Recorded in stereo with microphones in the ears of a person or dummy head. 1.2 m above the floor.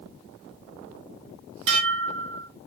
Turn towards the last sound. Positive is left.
turn(degrees=-70)  # may be behind; listen again after turning